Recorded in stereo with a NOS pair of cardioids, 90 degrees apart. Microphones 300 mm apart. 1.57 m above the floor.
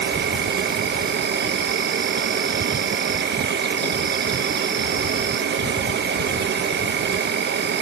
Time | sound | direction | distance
0.0 | an insect | 40° right | 0.8 m